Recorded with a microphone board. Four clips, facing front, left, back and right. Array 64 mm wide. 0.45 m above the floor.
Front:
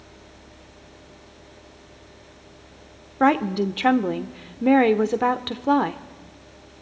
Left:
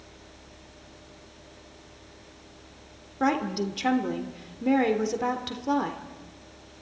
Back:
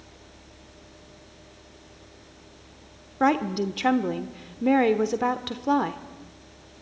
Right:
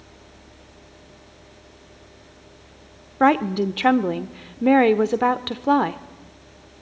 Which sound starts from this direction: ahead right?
A woman speaking, at 3.2 s.